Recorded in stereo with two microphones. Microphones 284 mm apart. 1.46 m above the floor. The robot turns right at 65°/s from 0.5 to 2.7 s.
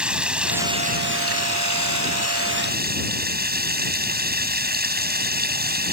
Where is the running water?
175° right; by 5.9 s 35° right.